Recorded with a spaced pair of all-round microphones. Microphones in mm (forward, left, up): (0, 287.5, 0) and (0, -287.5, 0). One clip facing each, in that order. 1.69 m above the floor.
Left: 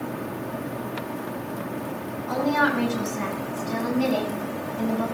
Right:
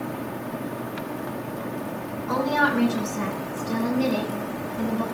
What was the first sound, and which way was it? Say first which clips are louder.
A woman speaking: left 1 dB; 70° right (ahead or behind).